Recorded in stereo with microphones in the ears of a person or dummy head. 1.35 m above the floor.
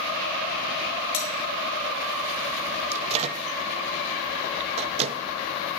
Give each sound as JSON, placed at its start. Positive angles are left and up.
{"t": 1.1, "sound": "cutlery clinking", "side_deg": 30, "distance_m": 1.6}
{"t": 2.9, "sound": "a microwave", "side_deg": -35, "distance_m": 0.6}